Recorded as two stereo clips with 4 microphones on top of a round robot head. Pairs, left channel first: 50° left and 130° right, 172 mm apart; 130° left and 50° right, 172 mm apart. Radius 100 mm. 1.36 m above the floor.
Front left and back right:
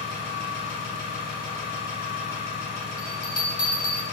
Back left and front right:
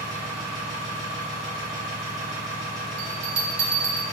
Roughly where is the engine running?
Ahead.